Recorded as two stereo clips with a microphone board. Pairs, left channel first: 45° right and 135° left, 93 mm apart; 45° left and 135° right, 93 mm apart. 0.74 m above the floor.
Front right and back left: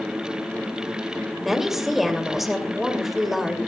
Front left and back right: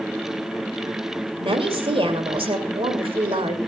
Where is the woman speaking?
140° right, 2.5 m.